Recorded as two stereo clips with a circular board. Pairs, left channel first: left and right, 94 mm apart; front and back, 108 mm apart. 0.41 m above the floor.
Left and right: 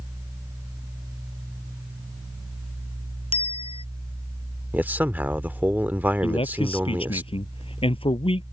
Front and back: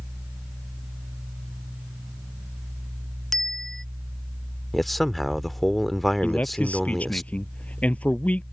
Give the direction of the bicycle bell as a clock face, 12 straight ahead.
9 o'clock.